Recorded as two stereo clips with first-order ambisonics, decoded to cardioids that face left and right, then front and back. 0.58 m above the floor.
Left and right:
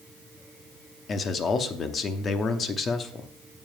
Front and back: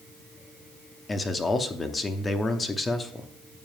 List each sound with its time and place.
1.1 s a man speaking: 60° left, 0.7 m